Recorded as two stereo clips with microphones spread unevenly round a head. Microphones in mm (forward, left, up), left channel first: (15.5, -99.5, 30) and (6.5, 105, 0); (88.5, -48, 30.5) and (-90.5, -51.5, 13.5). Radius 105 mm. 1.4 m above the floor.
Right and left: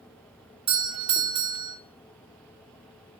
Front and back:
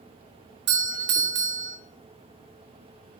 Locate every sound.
0.7 s a doorbell: 155° left, 1.7 m